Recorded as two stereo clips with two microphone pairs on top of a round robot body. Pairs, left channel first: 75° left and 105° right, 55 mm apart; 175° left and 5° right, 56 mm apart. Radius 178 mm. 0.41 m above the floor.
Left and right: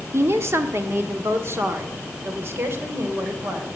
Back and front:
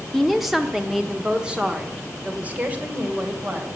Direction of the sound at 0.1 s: 90° right.